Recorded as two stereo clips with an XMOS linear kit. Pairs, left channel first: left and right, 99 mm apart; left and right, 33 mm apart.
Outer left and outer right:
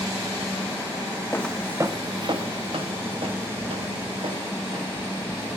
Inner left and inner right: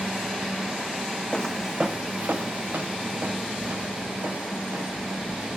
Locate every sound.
1.3 s footsteps: 25° left (ahead or behind), 0.6 m; by 5.5 s 75° right (ahead or behind), 5 m